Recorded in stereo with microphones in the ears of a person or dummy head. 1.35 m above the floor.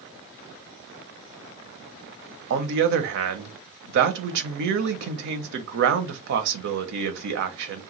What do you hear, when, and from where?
2.5 s a man speaking: 60° right (ahead or behind), 0.6 m